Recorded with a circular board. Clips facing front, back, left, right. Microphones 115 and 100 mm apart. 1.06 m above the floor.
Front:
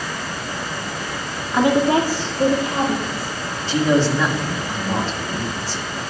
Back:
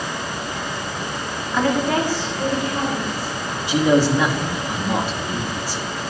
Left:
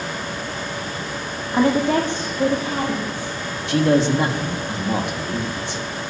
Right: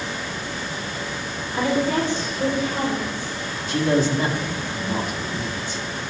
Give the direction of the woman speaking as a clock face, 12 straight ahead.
9 o'clock.